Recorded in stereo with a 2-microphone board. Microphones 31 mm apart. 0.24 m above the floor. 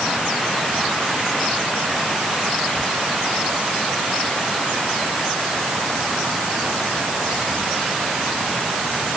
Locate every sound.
Only background noise.